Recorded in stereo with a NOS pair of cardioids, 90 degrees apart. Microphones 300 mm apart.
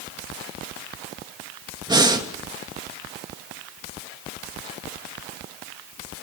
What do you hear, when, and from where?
1.9 s breathing: 15° right, 2.5 m